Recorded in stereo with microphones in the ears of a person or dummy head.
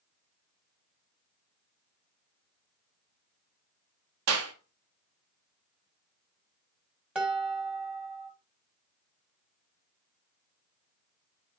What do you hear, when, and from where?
4.3 s a clap: 80° right, 1.6 m
7.2 s dishes clattering: 5° right (ahead or behind), 1.7 m